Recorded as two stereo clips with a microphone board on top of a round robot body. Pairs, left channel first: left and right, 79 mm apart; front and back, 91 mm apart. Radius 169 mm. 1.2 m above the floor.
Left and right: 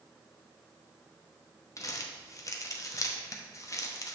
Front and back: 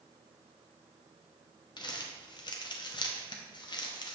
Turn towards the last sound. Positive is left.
turn(degrees=40)